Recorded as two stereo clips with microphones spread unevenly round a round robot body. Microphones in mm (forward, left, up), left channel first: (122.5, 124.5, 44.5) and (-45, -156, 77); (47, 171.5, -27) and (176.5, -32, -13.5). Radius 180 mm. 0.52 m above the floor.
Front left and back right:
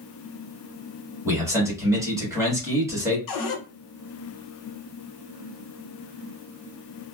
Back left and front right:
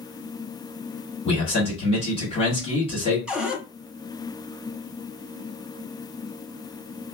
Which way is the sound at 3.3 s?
30° left.